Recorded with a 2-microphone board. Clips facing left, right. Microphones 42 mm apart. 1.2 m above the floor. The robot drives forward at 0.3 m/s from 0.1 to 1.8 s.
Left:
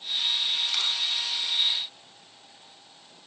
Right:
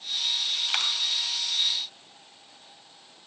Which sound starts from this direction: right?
A dropped coin, at 0.7 s.